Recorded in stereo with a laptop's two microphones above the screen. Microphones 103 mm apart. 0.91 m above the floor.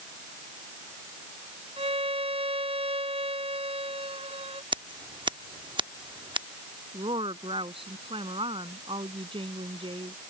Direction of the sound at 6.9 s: 60° right (ahead or behind).